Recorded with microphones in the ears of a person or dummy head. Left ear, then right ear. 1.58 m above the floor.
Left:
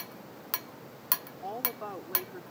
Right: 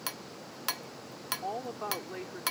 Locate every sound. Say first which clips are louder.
1.4 s a woman speaking: right 2 dB; centre (ahead or behind)